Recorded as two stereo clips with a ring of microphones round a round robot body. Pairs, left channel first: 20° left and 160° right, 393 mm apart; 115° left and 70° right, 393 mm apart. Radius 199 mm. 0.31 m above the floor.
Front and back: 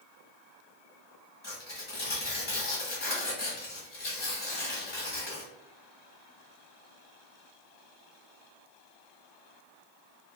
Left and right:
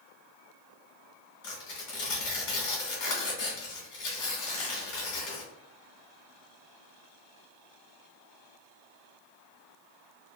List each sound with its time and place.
1.4 s tearing paper: 85° left, 1.3 m